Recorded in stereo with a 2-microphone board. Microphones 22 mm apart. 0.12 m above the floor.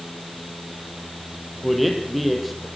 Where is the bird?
I don't hear a bird.